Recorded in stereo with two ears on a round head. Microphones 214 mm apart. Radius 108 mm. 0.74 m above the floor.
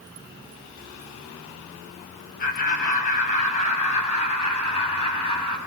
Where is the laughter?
35° left (ahead or behind), 5.5 m; by 5.6 s 25° left (ahead or behind), 6 m.